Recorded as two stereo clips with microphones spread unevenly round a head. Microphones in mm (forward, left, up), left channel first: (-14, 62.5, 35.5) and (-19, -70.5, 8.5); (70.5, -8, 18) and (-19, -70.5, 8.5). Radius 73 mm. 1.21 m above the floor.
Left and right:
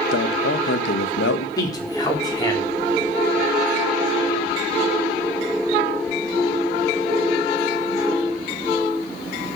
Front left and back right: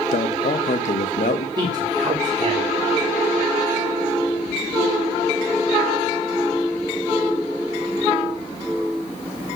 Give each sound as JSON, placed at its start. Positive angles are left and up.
{"t": 0.1, "sound": "a man speaking", "azimuth_deg": 80, "distance_m": 1.1}
{"t": 1.6, "sound": "a man speaking", "azimuth_deg": 155, "distance_m": 4.0}